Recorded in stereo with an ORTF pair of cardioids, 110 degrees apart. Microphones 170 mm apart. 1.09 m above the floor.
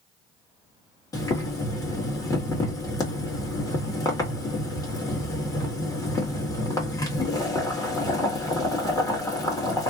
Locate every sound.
1.1 s boiling: 20° left, 1.7 m